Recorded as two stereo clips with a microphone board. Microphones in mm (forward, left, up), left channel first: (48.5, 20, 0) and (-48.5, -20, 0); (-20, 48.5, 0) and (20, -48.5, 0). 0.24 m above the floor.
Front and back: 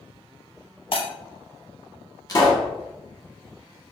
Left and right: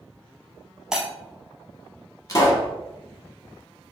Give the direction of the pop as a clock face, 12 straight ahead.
10 o'clock.